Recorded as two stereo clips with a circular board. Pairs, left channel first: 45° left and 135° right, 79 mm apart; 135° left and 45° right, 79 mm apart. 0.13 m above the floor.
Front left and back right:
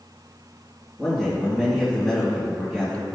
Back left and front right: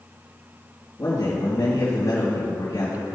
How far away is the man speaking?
About 2.5 m.